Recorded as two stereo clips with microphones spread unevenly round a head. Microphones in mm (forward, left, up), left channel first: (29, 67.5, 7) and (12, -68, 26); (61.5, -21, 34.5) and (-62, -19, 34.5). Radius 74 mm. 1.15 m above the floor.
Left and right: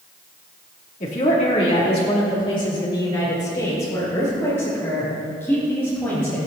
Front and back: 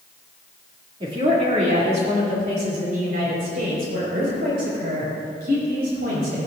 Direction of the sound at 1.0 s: 125° left.